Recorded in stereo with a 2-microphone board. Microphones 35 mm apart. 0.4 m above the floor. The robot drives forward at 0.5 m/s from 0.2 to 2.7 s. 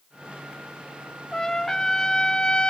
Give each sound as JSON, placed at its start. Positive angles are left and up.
{"t": 1.3, "sound": "a trumpet", "side_deg": 15, "distance_m": 0.9}